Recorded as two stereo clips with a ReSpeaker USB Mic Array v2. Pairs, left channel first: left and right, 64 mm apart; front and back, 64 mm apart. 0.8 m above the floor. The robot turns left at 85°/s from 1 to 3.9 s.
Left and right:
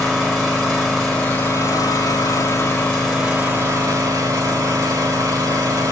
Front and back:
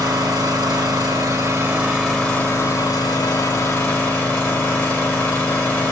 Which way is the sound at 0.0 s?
175° right.